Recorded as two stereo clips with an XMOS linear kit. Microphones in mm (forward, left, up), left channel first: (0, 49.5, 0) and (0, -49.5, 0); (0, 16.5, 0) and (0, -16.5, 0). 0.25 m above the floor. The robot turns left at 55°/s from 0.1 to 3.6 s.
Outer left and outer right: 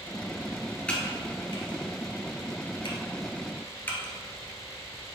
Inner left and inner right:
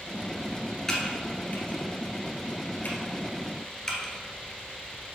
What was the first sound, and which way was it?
Typing on a keyboard, 10° left (ahead or behind).